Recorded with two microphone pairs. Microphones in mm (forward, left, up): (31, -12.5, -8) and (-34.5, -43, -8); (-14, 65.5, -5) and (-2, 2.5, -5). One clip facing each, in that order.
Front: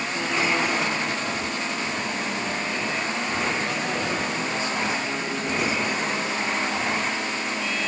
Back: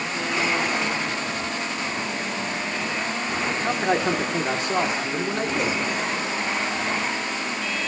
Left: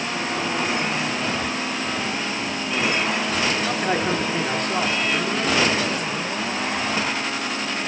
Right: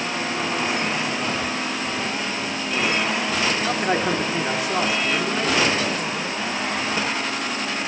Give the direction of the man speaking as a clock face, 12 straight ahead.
5 o'clock.